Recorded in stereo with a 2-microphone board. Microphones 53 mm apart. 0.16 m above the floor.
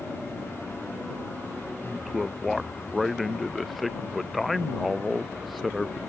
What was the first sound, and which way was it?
A man speaking, centre (ahead or behind).